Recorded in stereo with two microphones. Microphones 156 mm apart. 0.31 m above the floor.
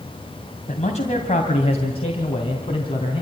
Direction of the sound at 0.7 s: 50° left (ahead or behind).